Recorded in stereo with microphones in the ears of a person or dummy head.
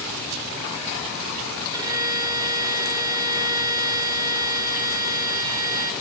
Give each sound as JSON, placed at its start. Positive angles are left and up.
{"t": 1.7, "sound": "a violin", "side_deg": -25, "distance_m": 1.8}